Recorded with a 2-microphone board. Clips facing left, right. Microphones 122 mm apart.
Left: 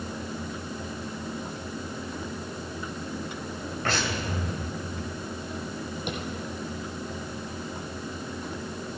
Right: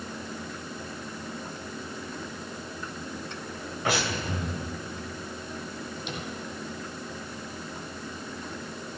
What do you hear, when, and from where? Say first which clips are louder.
3.9 s breathing: right 2 dB; 15° right (ahead or behind), 2.5 m
6.1 s tapping: left 4 dB; 55° left (ahead or behind), 3 m